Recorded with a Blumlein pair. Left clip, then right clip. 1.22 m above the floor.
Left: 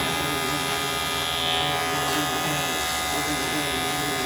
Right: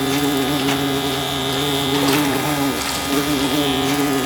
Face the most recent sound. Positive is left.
turn(degrees=-60)